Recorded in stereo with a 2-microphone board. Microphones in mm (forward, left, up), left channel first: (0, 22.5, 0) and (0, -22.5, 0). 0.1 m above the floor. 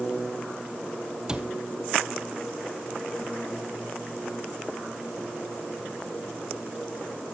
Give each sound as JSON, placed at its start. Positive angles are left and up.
{"t": 1.3, "sound": "a cupboard door", "side_deg": -20, "distance_m": 1.1}